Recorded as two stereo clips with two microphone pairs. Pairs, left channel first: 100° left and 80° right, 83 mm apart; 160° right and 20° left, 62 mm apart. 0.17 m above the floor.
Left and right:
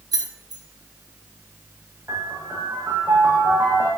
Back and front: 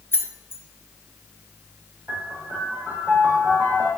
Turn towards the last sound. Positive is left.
turn(degrees=-25)